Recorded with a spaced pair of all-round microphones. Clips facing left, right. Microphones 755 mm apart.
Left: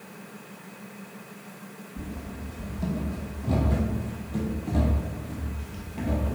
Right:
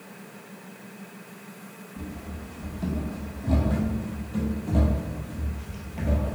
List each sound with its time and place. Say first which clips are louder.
2.0 s running footsteps: even; 5° left (ahead or behind), 3.5 m; by 6.3 s 20° right (ahead or behind), 2.0 m